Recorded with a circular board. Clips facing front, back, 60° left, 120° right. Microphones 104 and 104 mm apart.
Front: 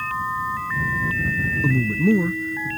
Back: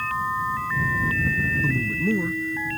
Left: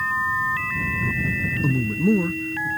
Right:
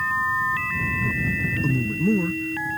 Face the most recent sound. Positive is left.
turn(degrees=10)